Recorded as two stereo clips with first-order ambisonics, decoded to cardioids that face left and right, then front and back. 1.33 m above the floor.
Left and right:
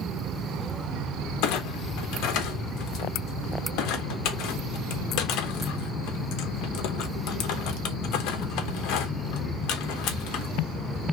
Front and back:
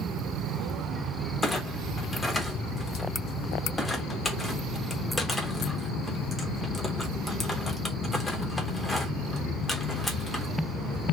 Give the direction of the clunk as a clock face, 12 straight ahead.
9 o'clock.